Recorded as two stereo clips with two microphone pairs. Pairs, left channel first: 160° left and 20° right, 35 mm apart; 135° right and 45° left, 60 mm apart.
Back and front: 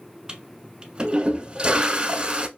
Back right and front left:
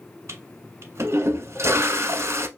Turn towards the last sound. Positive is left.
turn(degrees=30)